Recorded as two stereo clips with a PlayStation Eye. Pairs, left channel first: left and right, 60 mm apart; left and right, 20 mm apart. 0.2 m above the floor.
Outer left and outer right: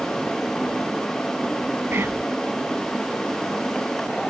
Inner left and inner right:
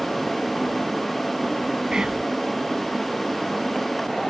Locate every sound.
1.9 s whispering: 40° right (ahead or behind)